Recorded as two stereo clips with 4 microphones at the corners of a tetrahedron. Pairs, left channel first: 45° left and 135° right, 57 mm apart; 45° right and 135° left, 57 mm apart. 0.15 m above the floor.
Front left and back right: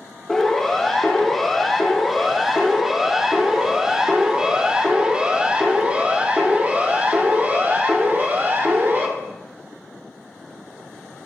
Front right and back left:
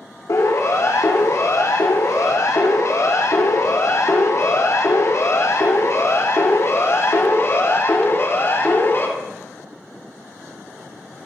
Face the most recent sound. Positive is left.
turn(degrees=-85)